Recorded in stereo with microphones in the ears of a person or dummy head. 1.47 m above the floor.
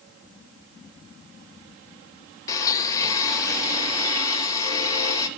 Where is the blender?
25° left (ahead or behind), 1.5 m.